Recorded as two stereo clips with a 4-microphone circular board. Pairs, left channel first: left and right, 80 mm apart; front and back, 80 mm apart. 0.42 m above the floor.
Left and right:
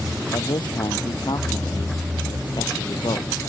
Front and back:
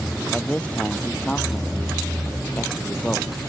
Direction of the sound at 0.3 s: 70° left.